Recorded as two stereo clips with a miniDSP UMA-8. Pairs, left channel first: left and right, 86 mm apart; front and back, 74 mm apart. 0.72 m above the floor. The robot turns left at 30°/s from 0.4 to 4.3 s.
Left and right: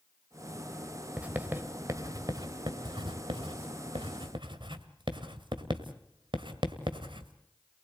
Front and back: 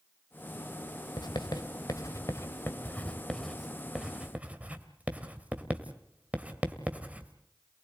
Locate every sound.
1.2 s writing: 15° right, 1.8 m; by 7.3 s 110° right, 1.8 m